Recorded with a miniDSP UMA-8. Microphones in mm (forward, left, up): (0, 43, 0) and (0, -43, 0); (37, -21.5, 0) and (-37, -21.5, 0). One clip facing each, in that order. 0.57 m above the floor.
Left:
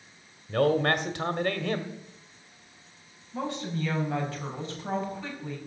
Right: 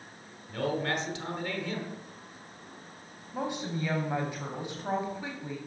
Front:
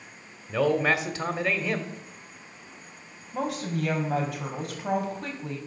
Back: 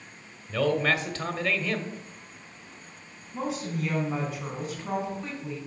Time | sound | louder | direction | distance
0.5 | a man speaking | left 7 dB, front 2 dB | 70° left | 1.4 m
3.3 | a woman speaking | left 1 dB, front 2 dB | 15° right | 3.5 m